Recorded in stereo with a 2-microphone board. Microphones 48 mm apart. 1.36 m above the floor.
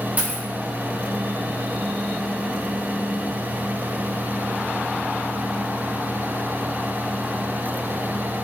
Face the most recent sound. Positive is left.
turn(degrees=-35)  # may be behind; listen again after turning